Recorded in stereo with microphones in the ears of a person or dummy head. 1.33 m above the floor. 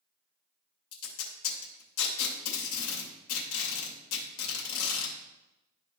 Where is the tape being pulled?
70° left (ahead or behind), 2.5 m.